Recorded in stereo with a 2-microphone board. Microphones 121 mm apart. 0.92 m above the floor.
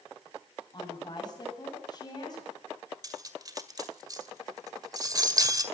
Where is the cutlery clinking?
30° right (ahead or behind), 1.8 m.